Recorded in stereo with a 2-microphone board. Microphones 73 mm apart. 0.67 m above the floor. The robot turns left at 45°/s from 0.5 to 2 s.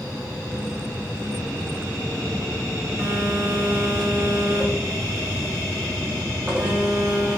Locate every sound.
3.0 s a phone buzzing: 25° right (ahead or behind), 1.5 m